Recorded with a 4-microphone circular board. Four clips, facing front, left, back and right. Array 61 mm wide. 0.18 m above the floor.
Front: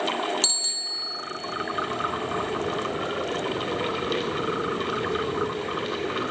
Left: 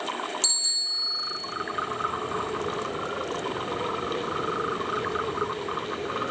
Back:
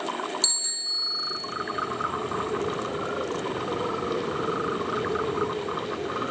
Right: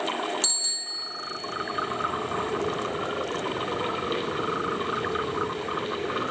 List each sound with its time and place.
0.4 s a bicycle bell: 5° right, 3.5 m